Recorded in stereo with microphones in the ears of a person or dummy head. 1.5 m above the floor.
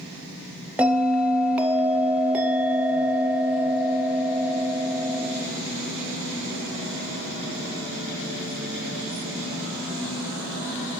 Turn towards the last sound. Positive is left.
turn(degrees=-5)  # may be behind; listen again after turning